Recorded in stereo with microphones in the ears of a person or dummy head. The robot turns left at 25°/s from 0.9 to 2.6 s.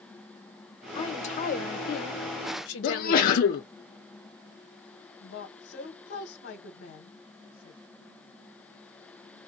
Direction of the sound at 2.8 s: 50° left (ahead or behind).